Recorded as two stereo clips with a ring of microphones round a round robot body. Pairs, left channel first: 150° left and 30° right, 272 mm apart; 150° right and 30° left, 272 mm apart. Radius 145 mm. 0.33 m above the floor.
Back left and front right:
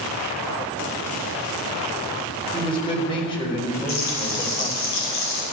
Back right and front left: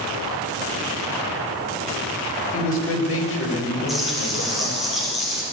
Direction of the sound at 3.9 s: 120° left.